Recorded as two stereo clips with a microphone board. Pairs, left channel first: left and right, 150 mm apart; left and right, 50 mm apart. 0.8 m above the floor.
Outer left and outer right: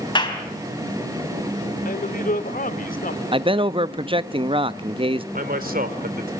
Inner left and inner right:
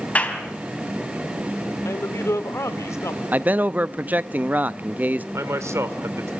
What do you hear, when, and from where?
0.1 s a clap: 30° left (ahead or behind), 4 m
1.9 s a man speaking: 70° left (ahead or behind), 1.8 m
3.3 s a man speaking: 35° right (ahead or behind), 0.6 m
5.3 s a man speaking: 80° right, 2.5 m